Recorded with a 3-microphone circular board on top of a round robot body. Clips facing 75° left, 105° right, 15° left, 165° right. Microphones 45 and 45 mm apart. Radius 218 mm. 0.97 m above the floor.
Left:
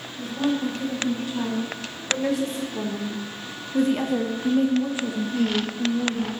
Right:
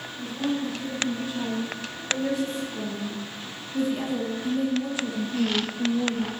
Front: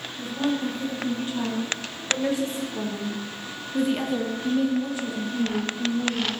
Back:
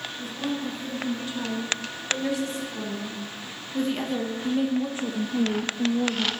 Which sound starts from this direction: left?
A woman speaking, at 0.2 s.